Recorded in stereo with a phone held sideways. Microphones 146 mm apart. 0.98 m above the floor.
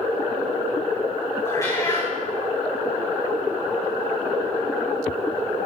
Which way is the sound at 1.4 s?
25° left (ahead or behind).